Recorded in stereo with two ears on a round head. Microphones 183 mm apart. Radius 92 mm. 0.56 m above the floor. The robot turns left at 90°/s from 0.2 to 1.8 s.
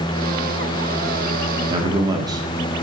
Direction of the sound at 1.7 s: 25° right (ahead or behind).